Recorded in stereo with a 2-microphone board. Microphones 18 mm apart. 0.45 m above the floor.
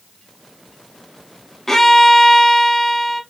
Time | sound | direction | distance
1.7 | a violin | 25° left (ahead or behind) | 0.9 m